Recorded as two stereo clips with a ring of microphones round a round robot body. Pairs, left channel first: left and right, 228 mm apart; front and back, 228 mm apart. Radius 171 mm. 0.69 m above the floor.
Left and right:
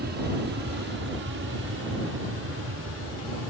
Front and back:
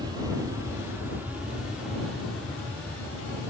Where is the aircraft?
110° right; by 3.5 s 80° right.